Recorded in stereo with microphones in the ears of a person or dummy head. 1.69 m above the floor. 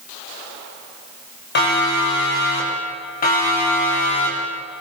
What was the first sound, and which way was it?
A siren, 50° left (ahead or behind).